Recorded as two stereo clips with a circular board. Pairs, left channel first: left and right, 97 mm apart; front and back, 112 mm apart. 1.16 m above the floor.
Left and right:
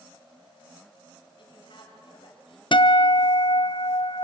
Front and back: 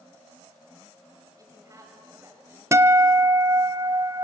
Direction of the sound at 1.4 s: 120° left.